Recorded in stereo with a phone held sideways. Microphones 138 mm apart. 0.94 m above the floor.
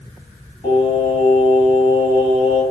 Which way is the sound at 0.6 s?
50° left (ahead or behind).